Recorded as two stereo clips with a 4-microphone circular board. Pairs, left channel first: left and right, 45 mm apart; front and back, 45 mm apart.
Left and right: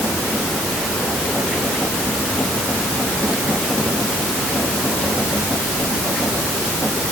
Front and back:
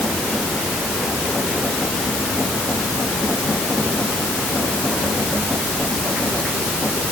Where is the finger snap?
No finger snap in this recording.